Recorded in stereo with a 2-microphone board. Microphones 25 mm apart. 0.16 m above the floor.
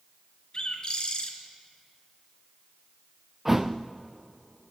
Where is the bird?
35° left (ahead or behind), 2.5 m.